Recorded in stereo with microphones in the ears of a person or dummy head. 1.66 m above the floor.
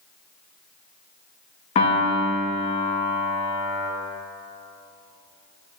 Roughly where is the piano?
Left.